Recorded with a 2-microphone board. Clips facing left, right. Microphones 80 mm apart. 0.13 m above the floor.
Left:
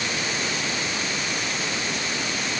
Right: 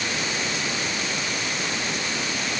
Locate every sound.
Only background noise.